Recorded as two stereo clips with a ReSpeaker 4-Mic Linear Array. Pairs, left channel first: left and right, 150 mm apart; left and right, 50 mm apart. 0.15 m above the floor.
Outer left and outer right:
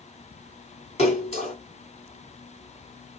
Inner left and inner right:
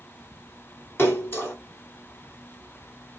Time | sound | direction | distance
1.0 | a splash | 45° left (ahead or behind) | 2.5 m